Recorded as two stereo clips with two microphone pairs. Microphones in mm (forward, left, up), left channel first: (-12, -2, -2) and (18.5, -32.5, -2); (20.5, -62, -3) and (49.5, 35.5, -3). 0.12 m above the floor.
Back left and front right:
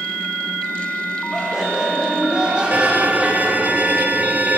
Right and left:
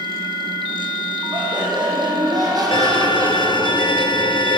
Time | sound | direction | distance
1.3 | laughter | 30° left | 6 m
2.7 | a violin | 85° right | 0.7 m